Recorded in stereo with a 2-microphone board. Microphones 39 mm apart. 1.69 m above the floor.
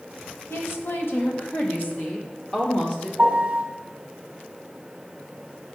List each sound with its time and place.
0.5 s a woman speaking: 70° left (ahead or behind), 1.2 m; by 3.1 s 35° left (ahead or behind), 1.8 m
3.2 s a piano: 30° right (ahead or behind), 1.1 m